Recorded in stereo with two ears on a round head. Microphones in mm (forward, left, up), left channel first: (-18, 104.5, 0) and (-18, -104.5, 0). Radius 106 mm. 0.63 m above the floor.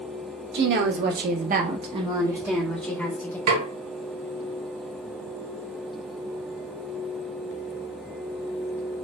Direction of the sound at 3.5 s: 75° right (ahead or behind).